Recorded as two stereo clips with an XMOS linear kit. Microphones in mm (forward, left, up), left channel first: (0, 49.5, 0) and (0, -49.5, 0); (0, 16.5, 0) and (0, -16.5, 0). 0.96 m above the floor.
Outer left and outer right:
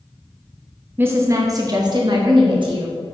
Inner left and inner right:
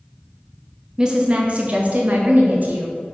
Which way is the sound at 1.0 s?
20° right (ahead or behind).